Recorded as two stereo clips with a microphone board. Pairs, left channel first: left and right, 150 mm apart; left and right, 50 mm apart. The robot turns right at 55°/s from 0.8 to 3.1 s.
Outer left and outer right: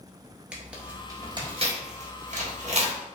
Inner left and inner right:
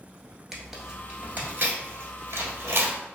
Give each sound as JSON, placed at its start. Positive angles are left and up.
{"t": 0.5, "sound": "tearing paper", "side_deg": -10, "distance_m": 1.1}